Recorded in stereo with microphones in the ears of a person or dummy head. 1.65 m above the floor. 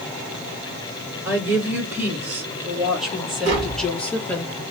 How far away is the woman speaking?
About 3.5 m.